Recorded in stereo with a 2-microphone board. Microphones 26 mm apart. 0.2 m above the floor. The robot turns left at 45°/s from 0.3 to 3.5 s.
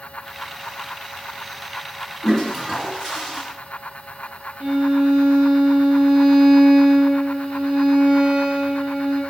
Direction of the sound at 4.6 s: 40° right (ahead or behind).